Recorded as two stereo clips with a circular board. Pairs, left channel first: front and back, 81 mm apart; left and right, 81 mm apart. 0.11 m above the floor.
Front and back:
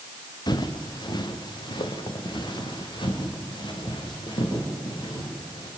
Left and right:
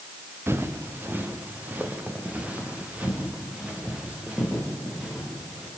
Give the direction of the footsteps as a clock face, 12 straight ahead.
1 o'clock.